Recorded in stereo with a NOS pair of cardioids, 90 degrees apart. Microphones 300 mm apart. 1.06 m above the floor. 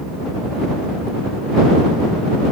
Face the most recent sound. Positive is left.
No sound to turn to.